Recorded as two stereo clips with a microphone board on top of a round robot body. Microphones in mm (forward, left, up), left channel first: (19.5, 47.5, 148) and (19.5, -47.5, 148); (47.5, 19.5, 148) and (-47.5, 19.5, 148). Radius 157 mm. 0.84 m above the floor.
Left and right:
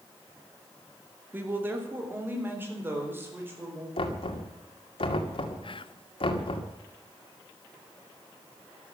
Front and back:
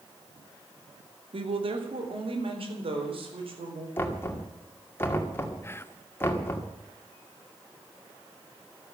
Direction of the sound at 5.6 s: 65° left.